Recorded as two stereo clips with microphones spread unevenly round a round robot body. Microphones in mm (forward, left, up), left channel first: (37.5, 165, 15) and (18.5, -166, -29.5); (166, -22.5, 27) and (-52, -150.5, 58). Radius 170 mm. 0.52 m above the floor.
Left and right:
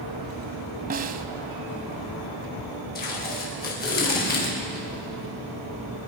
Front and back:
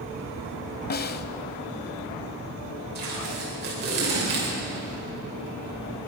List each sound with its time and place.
0.9 s a snare drum: 25° right, 0.7 m
3.0 s tape being pulled: 155° left, 2.5 m